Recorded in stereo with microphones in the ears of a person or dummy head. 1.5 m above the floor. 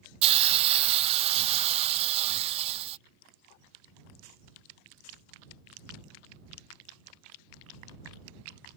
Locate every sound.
0.2 s a hiss: 30° right (ahead or behind)